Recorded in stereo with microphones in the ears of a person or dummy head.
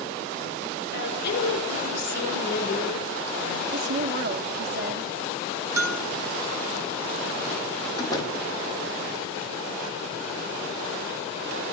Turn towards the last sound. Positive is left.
turn(degrees=20)  # may be behind; listen again after turning